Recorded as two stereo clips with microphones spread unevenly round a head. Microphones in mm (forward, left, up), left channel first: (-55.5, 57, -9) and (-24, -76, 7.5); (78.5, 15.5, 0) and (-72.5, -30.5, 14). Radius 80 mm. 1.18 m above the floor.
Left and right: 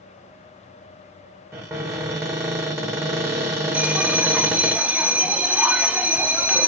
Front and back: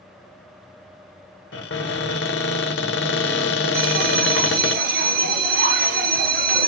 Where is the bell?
150° right, 0.6 m.